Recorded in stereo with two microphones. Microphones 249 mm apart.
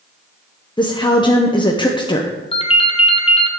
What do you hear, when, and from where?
0.8 s a woman speaking: 20° left (ahead or behind), 0.7 m
2.5 s a ringtone: 25° left (ahead or behind), 0.9 m